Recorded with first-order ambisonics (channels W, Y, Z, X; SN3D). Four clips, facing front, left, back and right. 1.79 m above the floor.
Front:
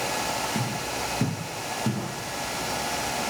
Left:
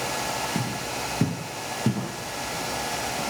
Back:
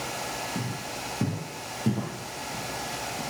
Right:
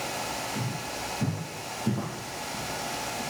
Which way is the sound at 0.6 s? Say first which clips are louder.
Left 4 dB, front 5 dB; 70° left.